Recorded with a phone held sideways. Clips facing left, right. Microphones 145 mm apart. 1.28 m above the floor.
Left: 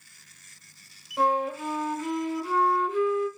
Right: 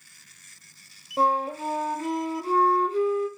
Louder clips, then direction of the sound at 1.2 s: Right 1 dB; 35° right (ahead or behind).